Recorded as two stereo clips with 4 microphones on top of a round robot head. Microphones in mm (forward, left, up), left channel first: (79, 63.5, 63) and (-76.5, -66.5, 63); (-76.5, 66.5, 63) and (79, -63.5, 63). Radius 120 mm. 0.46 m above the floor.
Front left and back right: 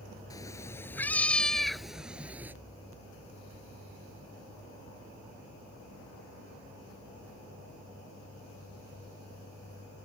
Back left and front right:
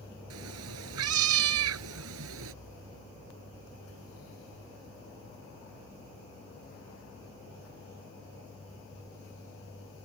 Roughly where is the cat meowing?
Ahead right.